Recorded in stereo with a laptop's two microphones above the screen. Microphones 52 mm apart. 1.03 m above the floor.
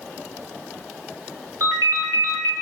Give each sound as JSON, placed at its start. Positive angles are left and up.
{"t": 1.6, "sound": "a ringtone", "side_deg": -80, "distance_m": 1.0}